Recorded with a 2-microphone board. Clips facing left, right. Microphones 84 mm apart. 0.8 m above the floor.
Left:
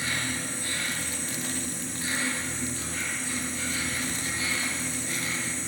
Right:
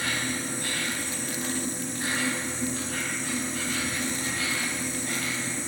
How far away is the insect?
About 4 m.